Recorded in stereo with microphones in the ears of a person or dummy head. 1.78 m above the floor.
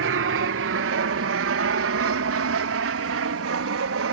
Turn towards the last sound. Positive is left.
turn(degrees=-70)  # may be behind; listen again after turning